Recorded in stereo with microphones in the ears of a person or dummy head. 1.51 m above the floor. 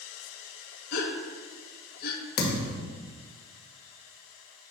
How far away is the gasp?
About 1.0 m.